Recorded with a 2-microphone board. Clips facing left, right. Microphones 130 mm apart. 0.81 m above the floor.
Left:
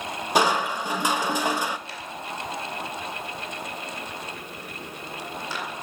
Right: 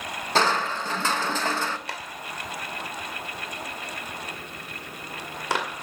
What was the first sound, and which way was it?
Crushing, 15° left (ahead or behind).